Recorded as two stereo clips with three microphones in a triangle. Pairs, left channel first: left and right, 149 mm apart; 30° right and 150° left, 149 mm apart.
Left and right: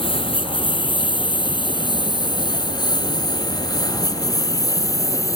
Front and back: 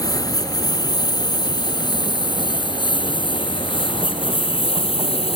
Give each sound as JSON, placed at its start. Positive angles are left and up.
{"t": 0.0, "sound": "a lawn mower", "azimuth_deg": 35}